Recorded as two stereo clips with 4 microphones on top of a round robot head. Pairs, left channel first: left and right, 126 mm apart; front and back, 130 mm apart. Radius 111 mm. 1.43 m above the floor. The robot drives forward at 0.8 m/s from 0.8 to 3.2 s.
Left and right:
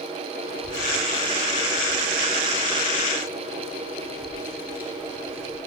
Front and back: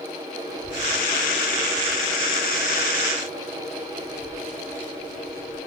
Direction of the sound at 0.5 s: 145° right.